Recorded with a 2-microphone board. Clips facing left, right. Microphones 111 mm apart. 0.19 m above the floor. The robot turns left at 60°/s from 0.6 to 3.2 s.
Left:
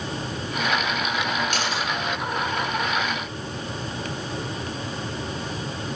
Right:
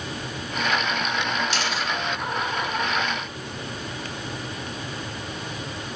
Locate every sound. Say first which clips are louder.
1.5 s a camera shutter: left 1 dB; 50° left (ahead or behind), 9 m; by 1.8 s 30° left (ahead or behind), 9 m